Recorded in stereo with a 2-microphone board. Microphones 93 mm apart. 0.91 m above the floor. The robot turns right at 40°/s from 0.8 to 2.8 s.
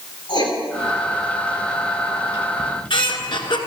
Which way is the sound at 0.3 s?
55° left (ahead or behind).